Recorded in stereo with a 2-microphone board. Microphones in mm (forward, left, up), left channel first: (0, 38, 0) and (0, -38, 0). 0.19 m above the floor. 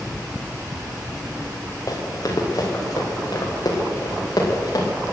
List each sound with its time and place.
1.9 s running footsteps: 50° left (ahead or behind), 4.5 m; by 4.9 s 55° left (ahead or behind), 7 m